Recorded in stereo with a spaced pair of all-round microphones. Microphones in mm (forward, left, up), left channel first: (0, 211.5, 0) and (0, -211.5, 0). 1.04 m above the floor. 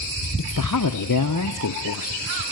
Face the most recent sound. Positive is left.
turn(degrees=45)  # may be behind; listen again after turning